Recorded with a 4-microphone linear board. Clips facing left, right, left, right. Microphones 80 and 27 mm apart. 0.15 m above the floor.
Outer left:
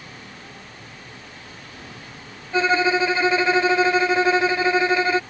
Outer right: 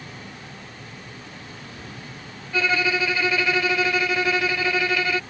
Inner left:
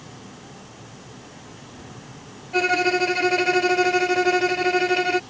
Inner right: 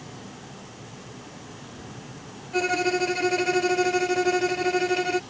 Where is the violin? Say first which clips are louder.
Outer left 4 dB, inner left 4 dB; 25° left (ahead or behind).